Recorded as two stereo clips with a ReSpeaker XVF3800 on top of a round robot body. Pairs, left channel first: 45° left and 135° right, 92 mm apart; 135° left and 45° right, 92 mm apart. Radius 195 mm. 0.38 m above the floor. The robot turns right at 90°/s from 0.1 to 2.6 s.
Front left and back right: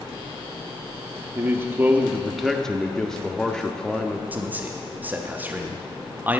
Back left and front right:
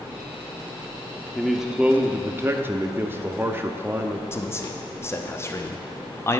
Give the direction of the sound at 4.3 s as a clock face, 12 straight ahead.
6 o'clock.